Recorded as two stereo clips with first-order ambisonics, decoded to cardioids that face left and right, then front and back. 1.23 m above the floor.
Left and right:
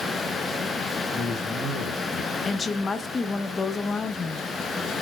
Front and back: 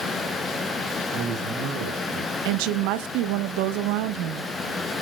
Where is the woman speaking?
165° left, 0.8 m.